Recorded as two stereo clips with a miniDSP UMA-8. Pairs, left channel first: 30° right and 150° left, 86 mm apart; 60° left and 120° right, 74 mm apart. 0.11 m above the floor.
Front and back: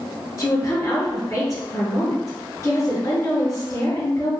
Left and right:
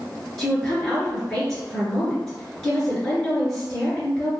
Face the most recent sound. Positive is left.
turn(degrees=-20)